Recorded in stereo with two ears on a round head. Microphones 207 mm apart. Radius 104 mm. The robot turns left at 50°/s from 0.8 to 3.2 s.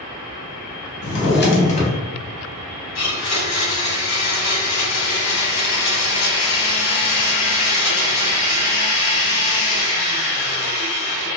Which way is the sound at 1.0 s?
60° left.